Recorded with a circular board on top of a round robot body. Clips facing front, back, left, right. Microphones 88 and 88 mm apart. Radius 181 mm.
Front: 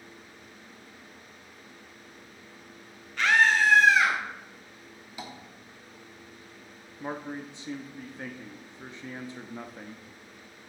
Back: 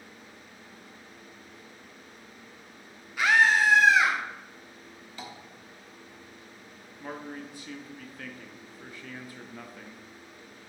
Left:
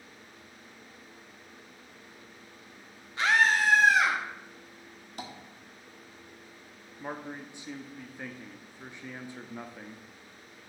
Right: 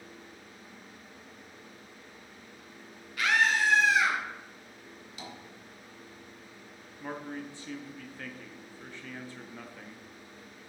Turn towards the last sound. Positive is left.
turn(degrees=35)